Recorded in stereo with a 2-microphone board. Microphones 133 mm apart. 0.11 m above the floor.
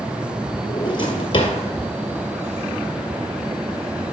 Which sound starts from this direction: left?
A drawer, at 0.7 s.